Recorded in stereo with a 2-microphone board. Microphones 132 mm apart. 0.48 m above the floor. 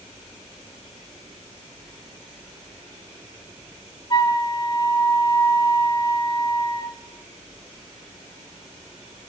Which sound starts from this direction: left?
A flute, at 4.1 s.